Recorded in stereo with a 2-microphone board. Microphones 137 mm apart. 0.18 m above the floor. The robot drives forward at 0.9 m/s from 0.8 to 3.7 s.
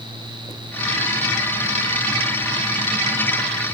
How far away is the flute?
No flute in this recording.